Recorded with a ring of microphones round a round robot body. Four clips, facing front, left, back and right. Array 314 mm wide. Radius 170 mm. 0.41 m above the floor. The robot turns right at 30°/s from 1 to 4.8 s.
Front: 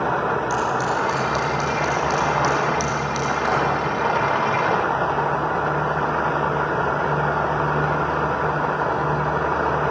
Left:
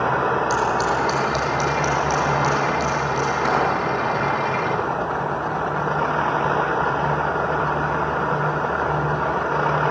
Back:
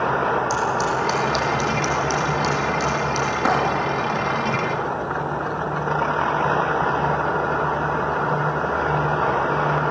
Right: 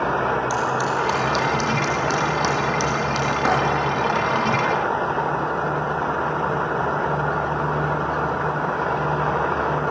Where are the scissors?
160° right, 5 m; by 3.3 s 90° right, 5 m.